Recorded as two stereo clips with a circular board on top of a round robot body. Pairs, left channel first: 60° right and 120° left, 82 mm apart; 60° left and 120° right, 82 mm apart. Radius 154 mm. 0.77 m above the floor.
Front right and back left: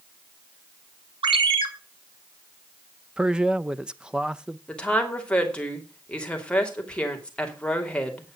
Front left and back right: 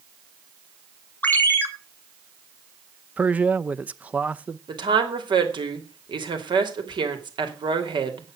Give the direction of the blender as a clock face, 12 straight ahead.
I don't hear a blender.